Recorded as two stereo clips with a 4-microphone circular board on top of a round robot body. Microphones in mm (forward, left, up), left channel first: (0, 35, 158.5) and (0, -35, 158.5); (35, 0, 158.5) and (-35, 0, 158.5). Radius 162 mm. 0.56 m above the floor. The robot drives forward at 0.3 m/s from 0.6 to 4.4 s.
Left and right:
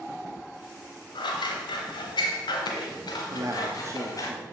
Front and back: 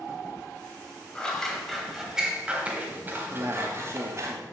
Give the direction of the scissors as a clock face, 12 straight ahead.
9 o'clock.